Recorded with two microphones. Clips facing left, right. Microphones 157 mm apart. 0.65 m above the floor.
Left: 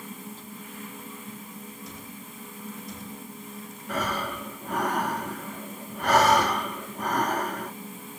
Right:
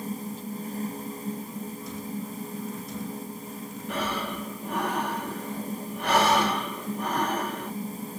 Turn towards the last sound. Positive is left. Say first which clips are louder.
# left 1 dB
turn(degrees=45)  # may be behind; listen again after turning